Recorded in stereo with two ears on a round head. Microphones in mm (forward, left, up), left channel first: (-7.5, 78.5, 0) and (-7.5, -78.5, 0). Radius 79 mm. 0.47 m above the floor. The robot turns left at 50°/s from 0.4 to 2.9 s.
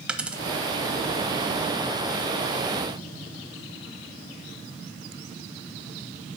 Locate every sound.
0.1 s a dropped coin: 5° right (ahead or behind), 0.9 m; by 0.4 s 10° right (ahead or behind), 0.9 m